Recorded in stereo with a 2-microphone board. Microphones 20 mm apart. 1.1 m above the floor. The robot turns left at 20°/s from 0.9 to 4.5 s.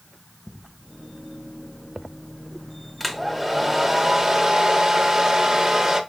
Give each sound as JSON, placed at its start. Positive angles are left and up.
{"t": 3.0, "sound": "a hair dryer", "azimuth_deg": 0, "distance_m": 0.8}